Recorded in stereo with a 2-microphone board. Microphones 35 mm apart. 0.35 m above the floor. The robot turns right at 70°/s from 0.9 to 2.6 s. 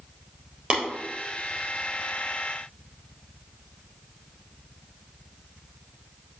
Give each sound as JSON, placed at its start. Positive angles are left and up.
{"t": 0.7, "sound": "tapping", "side_deg": -25, "distance_m": 3.5}